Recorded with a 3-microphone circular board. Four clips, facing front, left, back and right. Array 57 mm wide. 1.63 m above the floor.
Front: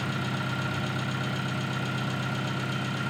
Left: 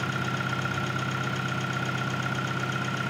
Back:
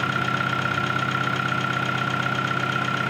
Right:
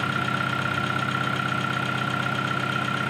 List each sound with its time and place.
0.0 s an engine running: 160° right, 2 m